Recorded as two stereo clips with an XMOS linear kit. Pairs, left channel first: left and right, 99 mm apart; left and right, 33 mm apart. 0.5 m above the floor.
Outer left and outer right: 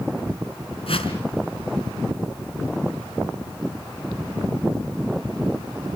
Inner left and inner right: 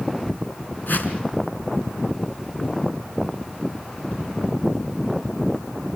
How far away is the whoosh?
About 3.5 m.